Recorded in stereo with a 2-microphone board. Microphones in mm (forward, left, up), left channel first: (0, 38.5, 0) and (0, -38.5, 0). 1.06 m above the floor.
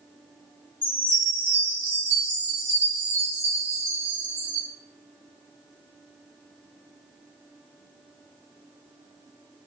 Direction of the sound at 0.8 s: 30° right (ahead or behind).